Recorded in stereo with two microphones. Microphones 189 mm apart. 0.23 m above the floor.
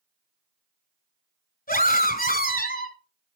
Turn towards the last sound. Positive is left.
turn(degrees=55)  # may be behind; listen again after turning